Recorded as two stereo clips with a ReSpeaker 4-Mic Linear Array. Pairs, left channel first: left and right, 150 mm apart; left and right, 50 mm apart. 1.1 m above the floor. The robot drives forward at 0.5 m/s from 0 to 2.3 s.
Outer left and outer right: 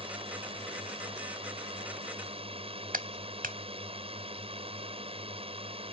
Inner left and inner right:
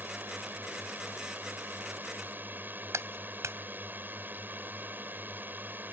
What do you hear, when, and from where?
0.0 s a drone: 35° right (ahead or behind)
2.9 s a clap: 65° right (ahead or behind)